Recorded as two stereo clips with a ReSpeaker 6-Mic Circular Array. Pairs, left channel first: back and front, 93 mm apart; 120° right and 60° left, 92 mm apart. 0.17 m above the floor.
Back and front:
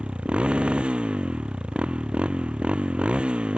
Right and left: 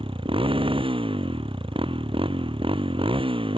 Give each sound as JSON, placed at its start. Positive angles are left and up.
{"t": 0.0, "sound": "a motorcycle", "azimuth_deg": 80}